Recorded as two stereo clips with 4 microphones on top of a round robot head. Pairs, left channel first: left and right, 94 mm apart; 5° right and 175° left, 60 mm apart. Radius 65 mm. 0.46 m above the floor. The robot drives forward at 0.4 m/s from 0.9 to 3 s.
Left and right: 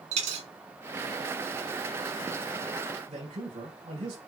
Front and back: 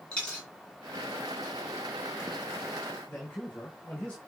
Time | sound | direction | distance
0.1 | a dropped coin | 85° right | 2 m
3.1 | a man speaking | 70° right | 5 m